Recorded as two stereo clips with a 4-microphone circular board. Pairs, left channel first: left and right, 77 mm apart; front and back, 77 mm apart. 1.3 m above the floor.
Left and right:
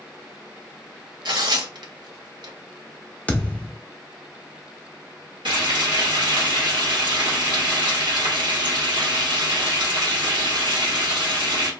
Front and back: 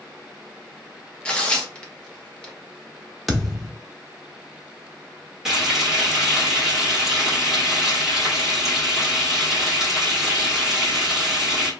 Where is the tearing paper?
75° right, 0.8 m.